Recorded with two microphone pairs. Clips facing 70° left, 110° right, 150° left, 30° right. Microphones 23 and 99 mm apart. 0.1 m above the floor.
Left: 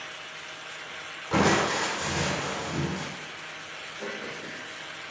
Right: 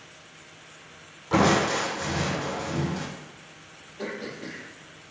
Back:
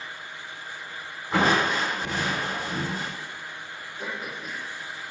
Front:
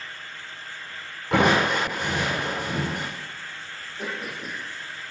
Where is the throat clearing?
80° right, 2.5 m.